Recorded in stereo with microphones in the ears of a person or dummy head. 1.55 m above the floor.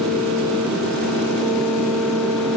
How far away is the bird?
I don't hear a bird.